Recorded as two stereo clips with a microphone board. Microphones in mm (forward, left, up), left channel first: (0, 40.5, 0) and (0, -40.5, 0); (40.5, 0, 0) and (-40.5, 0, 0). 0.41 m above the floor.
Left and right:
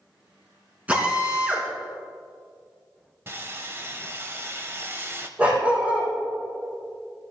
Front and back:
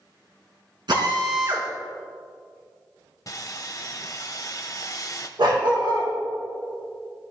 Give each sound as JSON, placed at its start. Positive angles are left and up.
{"t": 0.9, "sound": "a drill", "azimuth_deg": -165, "distance_m": 3.0}
{"t": 3.3, "sound": "sawing", "azimuth_deg": -35, "distance_m": 1.2}
{"t": 5.4, "sound": "a dog barking", "azimuth_deg": -165, "distance_m": 4.5}